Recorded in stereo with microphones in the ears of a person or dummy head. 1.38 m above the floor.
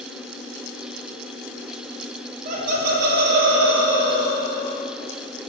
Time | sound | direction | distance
2.5 | laughter | 50° right (ahead or behind) | 2 m